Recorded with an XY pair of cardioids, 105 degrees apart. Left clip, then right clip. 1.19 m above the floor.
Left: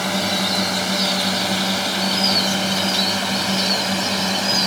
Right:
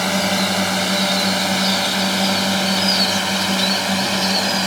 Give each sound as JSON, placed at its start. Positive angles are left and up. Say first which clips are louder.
{"t": 0.0, "sound": "a drone", "louder": "right 2 dB", "azimuth_deg": -20}